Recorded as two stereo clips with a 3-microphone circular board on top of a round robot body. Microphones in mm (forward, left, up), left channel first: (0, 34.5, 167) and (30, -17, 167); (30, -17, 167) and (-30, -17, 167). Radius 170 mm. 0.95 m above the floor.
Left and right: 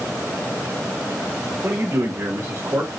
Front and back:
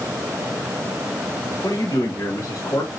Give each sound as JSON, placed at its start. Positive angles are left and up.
{"t": 1.6, "sound": "a man speaking", "azimuth_deg": -5, "distance_m": 2.0}